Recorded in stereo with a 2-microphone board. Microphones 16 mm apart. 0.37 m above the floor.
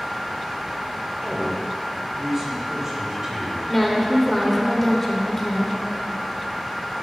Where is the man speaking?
30° right (ahead or behind), 1.2 m.